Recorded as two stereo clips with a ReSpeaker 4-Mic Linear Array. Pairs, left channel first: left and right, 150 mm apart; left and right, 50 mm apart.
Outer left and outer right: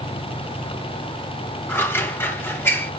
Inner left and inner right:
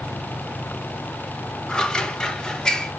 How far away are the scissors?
About 0.6 m.